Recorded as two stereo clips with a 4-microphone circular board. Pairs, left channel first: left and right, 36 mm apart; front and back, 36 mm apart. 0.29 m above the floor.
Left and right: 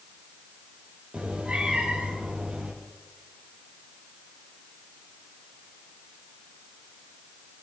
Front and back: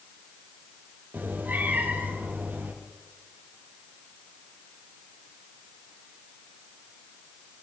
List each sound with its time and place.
1.1 s a cat meowing: 145° right, 4.5 m